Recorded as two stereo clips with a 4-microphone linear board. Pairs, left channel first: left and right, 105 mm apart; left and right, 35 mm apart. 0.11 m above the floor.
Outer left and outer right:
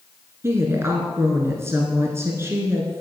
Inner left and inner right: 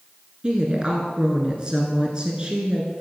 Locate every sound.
0.4 s a woman speaking: 25° right (ahead or behind), 1.5 m